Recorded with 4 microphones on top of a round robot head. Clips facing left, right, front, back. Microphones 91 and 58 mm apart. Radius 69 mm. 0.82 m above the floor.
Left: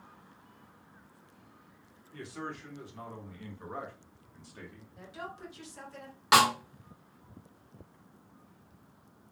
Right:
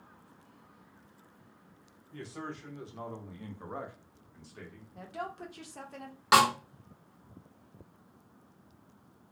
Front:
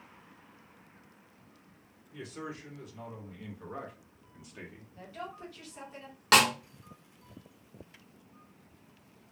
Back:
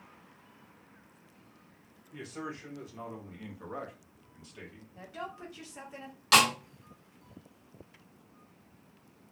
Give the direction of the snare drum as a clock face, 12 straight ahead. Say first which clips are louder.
Even, even; 12 o'clock.